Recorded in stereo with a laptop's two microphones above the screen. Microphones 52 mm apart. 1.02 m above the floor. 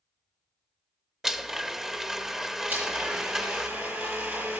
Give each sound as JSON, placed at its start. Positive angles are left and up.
{"t": 1.2, "sound": "a blender", "side_deg": -10, "distance_m": 0.7}
{"t": 2.7, "sound": "a blender", "side_deg": -65, "distance_m": 6.0}